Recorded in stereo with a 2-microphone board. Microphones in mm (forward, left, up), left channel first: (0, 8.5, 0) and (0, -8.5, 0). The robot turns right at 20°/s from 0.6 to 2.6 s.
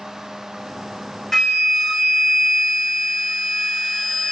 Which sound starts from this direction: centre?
A flute, at 1.3 s.